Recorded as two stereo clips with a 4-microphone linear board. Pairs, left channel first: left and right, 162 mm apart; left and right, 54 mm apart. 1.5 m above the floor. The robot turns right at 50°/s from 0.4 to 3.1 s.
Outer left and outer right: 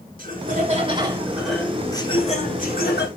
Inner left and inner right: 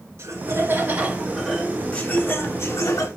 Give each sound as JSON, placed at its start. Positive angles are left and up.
{"t": 0.2, "sound": "laughter", "azimuth_deg": -55, "distance_m": 3.5}